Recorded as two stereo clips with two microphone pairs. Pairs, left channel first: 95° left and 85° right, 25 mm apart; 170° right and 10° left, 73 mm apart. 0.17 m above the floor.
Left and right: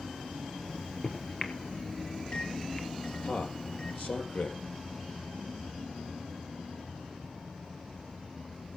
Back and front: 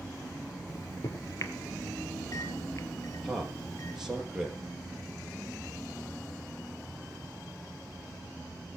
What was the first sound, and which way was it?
A microwave, 150° left.